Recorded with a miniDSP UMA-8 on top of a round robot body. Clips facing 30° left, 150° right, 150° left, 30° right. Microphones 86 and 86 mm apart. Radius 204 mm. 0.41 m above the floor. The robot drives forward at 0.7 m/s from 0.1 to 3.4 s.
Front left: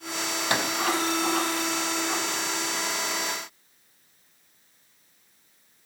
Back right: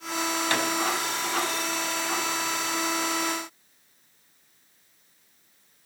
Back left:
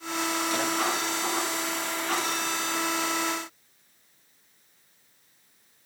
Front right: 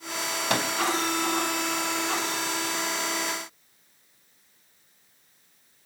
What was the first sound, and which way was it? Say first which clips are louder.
A microwave: front left 2 dB, front right 6 dB; 40° right.